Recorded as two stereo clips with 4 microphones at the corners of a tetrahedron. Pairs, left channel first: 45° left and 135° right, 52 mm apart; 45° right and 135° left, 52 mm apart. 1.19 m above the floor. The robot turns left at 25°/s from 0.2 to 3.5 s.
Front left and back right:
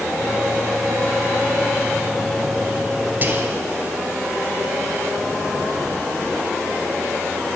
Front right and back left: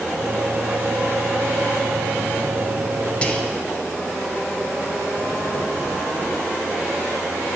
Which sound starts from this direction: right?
Whispering, at 3.2 s.